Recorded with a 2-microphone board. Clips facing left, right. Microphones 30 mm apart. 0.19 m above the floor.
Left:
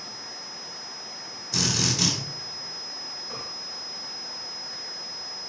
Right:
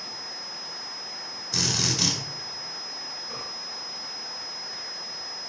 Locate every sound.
1.5 s a drill: 10° right (ahead or behind), 3.5 m